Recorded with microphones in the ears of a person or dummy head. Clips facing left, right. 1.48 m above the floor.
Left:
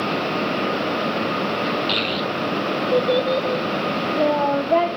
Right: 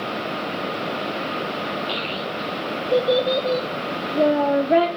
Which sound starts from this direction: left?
A child speaking, at 1.9 s.